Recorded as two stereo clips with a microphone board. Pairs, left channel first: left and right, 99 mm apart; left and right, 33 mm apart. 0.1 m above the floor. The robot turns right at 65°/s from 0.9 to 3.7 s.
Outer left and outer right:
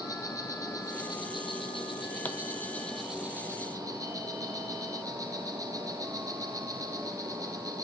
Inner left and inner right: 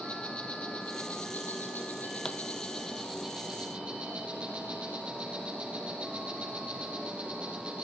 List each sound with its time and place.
0.0 s an insect: 40° left, 4 m; by 7.8 s 135° right, 4 m
2.2 s a pop: 15° left (ahead or behind), 1.0 m; by 2.4 s 10° left (ahead or behind), 1.0 m